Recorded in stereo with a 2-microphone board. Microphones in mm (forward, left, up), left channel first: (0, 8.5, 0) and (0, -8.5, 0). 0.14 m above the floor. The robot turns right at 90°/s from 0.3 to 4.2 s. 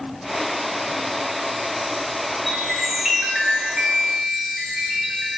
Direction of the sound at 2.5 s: 150° left.